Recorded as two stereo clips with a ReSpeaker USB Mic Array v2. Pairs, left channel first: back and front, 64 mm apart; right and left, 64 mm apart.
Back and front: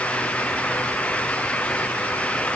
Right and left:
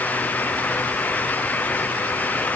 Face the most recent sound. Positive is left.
No sound to turn to.